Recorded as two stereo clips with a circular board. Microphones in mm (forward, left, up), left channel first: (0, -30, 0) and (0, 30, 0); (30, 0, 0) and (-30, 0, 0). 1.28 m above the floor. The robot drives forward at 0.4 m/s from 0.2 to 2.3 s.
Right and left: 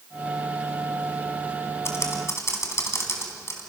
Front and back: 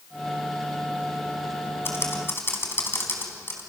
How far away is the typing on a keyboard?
About 4 m.